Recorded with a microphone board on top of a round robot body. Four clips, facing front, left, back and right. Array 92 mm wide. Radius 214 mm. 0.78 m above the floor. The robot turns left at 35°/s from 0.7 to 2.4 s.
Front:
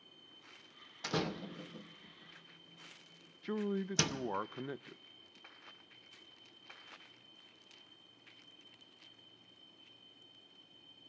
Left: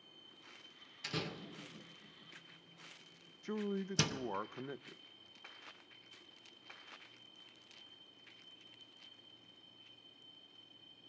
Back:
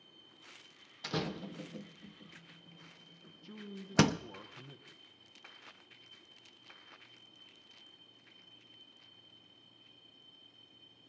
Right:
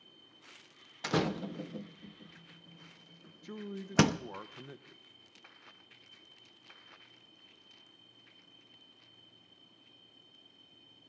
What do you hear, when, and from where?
1.0 s a door slam: 80° right, 0.6 m; by 4.2 s 130° right, 0.6 m
3.4 s a man speaking: 25° left, 0.7 m